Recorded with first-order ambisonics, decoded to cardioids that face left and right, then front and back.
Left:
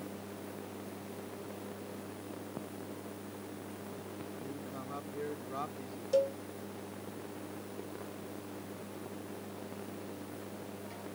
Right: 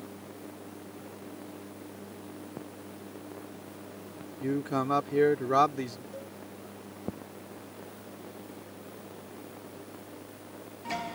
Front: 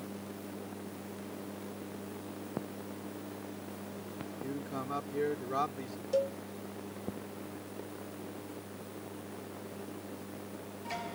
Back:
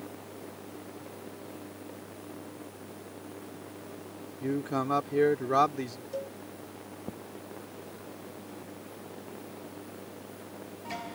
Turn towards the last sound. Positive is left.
turn(degrees=60)